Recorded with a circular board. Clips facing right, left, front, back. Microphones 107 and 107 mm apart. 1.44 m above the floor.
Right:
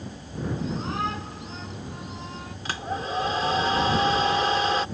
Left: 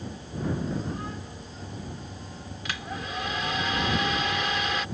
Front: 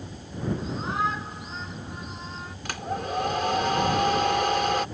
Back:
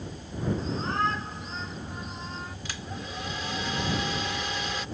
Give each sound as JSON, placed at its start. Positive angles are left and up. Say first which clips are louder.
{"t": 0.6, "sound": "a shout", "louder": "right 3 dB, front 1 dB", "azimuth_deg": -85}
{"t": 2.6, "sound": "a hair dryer", "louder": "right 6 dB, front 8 dB", "azimuth_deg": -30}